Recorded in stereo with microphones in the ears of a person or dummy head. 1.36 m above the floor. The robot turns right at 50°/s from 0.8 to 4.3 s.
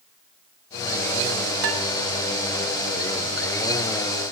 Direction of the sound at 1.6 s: 70° right (ahead or behind).